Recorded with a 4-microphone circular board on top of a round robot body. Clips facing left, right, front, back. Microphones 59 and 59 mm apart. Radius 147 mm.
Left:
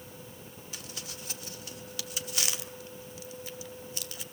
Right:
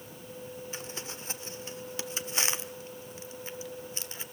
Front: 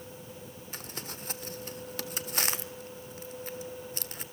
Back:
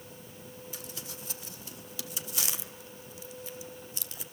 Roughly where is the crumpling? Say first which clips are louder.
Right 4 dB, front 2 dB; ahead right.